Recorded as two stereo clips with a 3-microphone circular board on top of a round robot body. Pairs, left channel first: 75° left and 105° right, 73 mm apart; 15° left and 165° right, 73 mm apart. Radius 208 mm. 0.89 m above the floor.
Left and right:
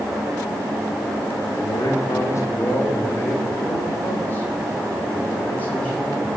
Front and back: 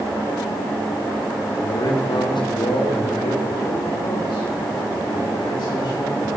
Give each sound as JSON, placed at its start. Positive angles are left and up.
{"t": 1.6, "sound": "a man speaking", "azimuth_deg": 40, "distance_m": 2.5}